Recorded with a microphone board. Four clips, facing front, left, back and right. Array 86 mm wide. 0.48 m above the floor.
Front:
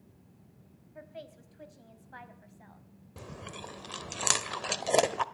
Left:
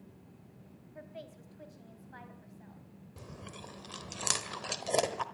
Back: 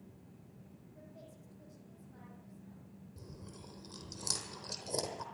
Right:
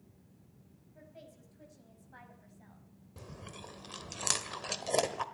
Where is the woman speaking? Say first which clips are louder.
Left 6 dB, front 10 dB; 35° left, 3 m; by 2.9 s straight ahead, 3.5 m.